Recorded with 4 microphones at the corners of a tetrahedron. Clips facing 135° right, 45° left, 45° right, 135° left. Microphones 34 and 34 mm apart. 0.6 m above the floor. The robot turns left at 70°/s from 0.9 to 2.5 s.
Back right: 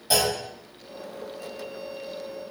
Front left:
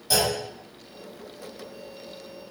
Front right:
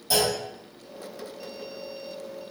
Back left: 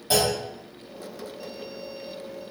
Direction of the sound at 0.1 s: 165° left.